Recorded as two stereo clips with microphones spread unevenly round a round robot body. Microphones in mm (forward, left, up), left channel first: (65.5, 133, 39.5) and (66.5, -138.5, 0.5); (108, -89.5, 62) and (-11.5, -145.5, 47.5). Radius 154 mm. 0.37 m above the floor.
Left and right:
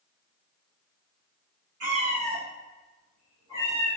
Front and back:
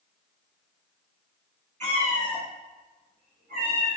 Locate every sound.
1.8 s a cat meowing: 125° right, 3.5 m; by 4.0 s 175° right, 4 m